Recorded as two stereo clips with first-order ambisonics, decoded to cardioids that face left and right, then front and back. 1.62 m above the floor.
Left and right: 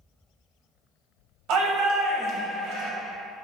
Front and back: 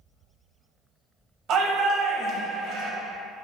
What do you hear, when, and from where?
1.5 s a shout: 130° right, 0.8 m